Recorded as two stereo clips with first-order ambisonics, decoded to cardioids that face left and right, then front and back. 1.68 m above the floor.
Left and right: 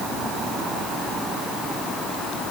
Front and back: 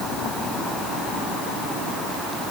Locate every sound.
Only background noise.